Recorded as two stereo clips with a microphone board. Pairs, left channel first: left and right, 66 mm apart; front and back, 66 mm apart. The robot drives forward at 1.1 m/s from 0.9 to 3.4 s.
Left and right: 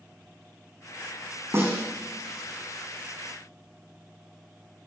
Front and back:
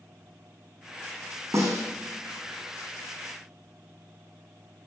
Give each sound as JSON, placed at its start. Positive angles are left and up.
{"t": 1.5, "sound": "a snare drum", "azimuth_deg": -145, "distance_m": 4.5}